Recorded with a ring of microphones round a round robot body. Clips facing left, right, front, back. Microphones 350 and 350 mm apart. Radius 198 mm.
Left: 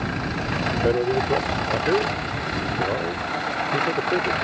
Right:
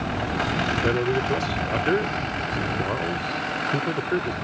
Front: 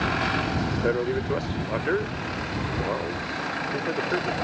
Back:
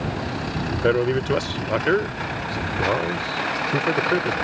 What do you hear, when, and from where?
0.7 s a man speaking: 160° right